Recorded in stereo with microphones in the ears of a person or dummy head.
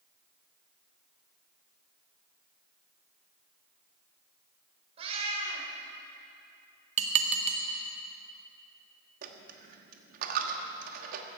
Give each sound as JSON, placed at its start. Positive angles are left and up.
{"t": 5.0, "sound": "a cat meowing", "side_deg": -35, "distance_m": 2.5}
{"t": 7.0, "sound": "dishes clattering", "side_deg": -40, "distance_m": 0.8}
{"t": 9.2, "sound": "a dropped coin", "side_deg": -55, "distance_m": 1.3}